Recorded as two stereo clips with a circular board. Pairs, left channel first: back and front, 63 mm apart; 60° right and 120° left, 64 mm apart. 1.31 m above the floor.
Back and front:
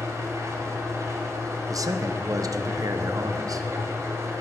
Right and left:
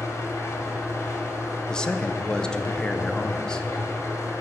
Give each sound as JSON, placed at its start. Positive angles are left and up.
{"t": 0.0, "sound": "an engine running", "azimuth_deg": -35, "distance_m": 2.0}
{"t": 1.7, "sound": "a man speaking", "azimuth_deg": 15, "distance_m": 0.7}